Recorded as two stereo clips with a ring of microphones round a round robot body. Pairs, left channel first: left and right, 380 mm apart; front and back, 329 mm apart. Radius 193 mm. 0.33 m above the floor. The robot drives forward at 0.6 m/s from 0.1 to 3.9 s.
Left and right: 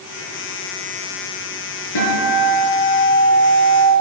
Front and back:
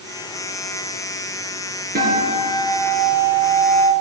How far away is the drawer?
I don't hear a drawer.